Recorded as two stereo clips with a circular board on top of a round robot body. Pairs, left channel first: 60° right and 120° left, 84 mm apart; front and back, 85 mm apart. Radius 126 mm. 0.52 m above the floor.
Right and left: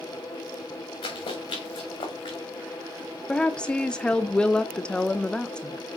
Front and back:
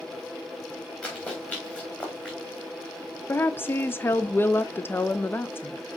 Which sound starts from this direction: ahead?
A woman speaking, at 3.3 s.